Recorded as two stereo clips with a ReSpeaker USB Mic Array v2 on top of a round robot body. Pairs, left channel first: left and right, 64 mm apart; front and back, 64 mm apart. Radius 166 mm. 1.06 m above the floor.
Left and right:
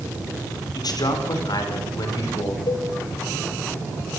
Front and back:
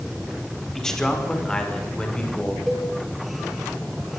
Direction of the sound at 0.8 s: 85° left.